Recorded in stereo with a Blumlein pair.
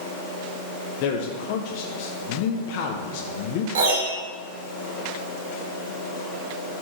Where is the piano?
60° right, 1.6 m.